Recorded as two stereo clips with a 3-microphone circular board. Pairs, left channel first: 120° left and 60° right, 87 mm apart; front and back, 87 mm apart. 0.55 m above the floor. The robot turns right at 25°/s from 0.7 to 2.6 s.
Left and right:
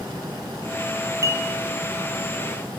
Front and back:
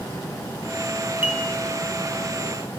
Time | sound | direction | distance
1.2 | dishes clattering | 115° right | 3 m